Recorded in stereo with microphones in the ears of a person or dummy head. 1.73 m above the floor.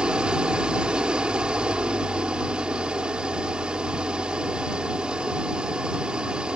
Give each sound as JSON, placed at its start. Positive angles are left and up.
{"t": 0.0, "sound": "an engine running", "side_deg": -5}